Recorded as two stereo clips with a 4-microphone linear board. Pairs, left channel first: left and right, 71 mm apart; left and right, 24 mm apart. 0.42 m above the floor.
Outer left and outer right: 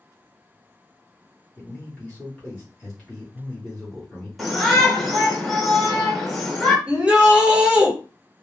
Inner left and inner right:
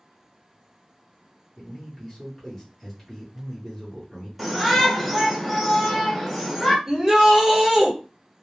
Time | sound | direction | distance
1.6 | a man speaking | 15° left (ahead or behind) | 0.8 m
4.4 | a shout | centre (ahead or behind) | 1.1 m
6.9 | a shout | 15° right (ahead or behind) | 0.9 m